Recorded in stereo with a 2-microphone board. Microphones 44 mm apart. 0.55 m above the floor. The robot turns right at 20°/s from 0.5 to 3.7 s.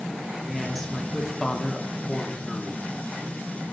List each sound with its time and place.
0.4 s a woman speaking: 5° right (ahead or behind), 0.9 m; by 2.9 s 20° left (ahead or behind), 0.9 m